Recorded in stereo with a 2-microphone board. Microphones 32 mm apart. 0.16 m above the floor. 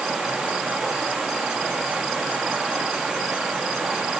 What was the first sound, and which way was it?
Running water, 15° right (ahead or behind).